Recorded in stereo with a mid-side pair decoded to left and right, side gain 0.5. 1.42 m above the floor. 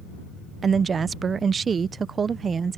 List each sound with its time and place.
0.6 s a woman speaking: 40° right